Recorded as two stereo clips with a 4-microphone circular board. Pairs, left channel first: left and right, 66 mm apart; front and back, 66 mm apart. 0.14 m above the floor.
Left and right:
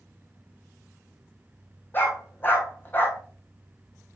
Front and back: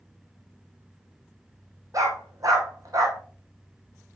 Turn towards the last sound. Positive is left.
turn(degrees=145)